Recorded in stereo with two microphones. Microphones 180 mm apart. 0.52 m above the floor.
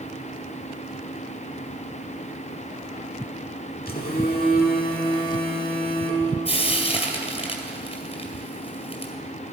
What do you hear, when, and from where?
3.9 s a phone buzzing: 55° left (ahead or behind), 1.6 m
6.5 s frying: 35° left (ahead or behind), 2 m